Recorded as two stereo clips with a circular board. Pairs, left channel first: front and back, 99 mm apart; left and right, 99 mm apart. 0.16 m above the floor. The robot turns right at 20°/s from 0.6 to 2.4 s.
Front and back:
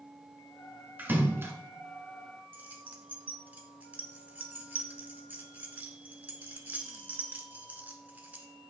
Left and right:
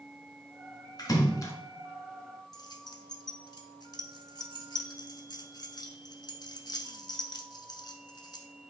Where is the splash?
115° left, 1.3 m; by 1.5 s 130° left, 1.3 m.